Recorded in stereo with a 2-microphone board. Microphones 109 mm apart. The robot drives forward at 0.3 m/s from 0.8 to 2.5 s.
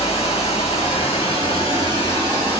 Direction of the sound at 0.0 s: 65° left (ahead or behind).